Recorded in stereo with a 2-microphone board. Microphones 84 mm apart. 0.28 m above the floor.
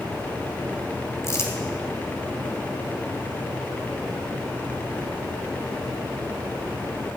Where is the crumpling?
35° left (ahead or behind), 1.7 m.